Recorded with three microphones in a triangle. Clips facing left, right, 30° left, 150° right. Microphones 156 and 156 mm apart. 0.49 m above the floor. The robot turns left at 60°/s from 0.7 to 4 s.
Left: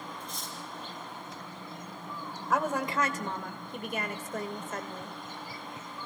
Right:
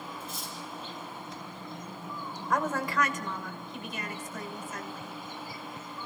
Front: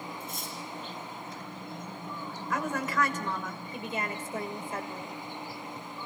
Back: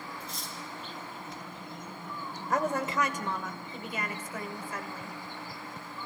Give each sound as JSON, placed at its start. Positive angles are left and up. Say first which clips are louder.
{"t": 0.2, "sound": "cutlery clinking", "louder": "right 1 dB, front 2 dB", "azimuth_deg": -5, "distance_m": 6.0}
{"t": 2.5, "sound": "a woman speaking", "louder": "even, back 2 dB", "azimuth_deg": 175, "distance_m": 1.6}